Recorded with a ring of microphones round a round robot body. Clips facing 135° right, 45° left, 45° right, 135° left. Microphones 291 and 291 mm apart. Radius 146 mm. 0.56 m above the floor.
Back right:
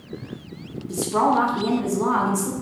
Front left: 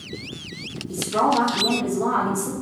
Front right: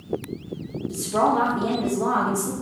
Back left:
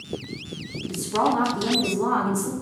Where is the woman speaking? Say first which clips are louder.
Back right 1 dB, front right 1 dB; 175° left, 0.7 m.